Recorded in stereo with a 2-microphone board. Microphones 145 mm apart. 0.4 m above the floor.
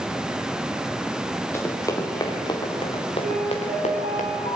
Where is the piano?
80° right, 6 m.